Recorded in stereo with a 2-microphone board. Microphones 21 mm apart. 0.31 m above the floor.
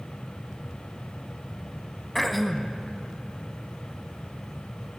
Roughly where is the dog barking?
I don't hear a dog barking.